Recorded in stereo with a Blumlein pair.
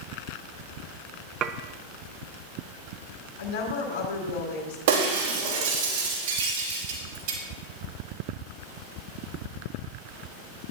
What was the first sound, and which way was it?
Dishes clattering, 30° right.